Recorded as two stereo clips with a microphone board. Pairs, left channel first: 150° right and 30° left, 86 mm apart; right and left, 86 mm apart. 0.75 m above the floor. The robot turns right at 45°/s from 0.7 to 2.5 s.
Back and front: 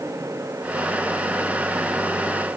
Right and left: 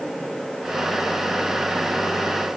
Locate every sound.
Only background noise.